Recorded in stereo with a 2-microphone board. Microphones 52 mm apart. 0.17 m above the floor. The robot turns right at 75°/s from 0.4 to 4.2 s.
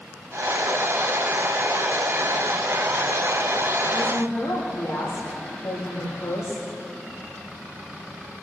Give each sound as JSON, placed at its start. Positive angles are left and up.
{"t": 3.9, "sound": "a woman speaking", "side_deg": 60, "distance_m": 9.0}